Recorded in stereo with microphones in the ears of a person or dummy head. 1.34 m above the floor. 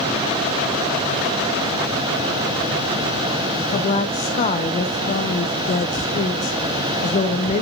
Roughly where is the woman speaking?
Left.